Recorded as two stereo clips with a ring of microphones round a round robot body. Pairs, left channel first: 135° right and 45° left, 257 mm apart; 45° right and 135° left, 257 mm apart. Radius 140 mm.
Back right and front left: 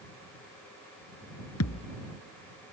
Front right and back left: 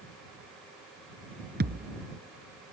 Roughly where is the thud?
Behind.